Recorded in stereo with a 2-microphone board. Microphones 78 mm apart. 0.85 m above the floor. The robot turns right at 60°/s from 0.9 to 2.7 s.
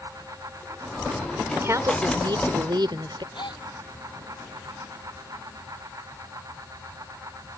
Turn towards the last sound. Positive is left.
turn(degrees=75)  # may be behind; listen again after turning